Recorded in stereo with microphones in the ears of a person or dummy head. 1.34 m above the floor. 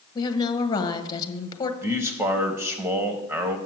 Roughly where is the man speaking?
Centre.